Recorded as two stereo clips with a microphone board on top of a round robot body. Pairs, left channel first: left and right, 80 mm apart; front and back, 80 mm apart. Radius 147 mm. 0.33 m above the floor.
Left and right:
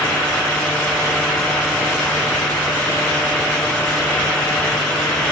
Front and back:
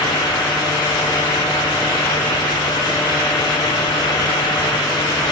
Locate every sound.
Only background noise.